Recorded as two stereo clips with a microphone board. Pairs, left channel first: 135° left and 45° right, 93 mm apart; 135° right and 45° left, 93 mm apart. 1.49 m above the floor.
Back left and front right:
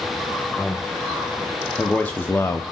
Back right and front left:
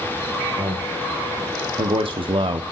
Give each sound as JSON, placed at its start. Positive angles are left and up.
{"t": 0.6, "sound": "a man speaking", "azimuth_deg": 50, "distance_m": 1.6}